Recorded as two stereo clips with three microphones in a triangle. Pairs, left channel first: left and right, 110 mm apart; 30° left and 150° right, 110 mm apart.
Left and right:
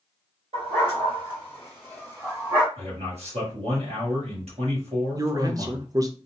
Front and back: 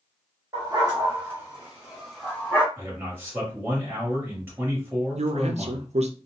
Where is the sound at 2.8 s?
80° right, 1.5 m.